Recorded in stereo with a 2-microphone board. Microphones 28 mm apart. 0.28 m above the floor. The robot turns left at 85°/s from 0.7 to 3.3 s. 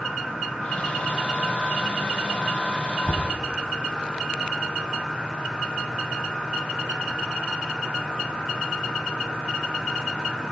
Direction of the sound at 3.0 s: 15° left (ahead or behind).